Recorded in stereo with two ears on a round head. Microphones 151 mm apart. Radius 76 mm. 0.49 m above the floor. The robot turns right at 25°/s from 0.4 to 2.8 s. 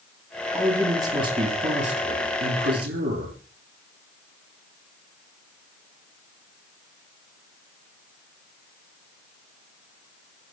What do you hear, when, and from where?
0.5 s a man speaking: 170° right, 8.5 m; by 3.4 s 110° right, 8.5 m